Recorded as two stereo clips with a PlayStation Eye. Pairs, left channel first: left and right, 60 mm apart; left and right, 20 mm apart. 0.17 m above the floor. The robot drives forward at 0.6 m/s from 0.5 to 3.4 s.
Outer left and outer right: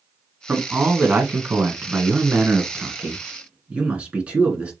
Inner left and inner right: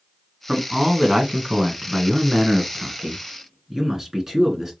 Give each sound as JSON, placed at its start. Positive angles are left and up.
{"t": 0.5, "sound": "a man speaking", "side_deg": -30, "distance_m": 1.5}